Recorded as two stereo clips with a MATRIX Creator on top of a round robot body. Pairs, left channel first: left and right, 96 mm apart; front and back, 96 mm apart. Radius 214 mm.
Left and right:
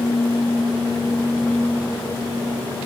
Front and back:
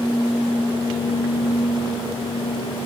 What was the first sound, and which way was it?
Only background noise.